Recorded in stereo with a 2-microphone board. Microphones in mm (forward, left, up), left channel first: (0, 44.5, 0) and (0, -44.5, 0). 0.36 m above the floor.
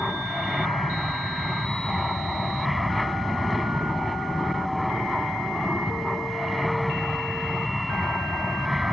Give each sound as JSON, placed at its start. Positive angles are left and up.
{"t": 0.0, "sound": "an aircraft", "side_deg": 0}